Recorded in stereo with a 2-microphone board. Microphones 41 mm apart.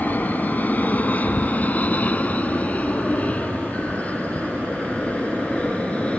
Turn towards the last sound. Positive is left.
turn(degrees=30)  # may be behind; listen again after turning